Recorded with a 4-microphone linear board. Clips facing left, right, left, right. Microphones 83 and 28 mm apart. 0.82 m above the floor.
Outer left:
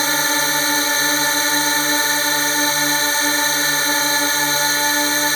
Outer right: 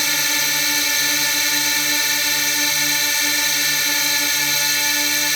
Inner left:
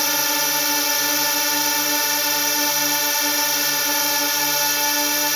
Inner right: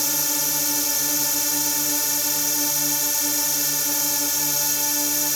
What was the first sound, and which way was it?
A drone, 35° left (ahead or behind).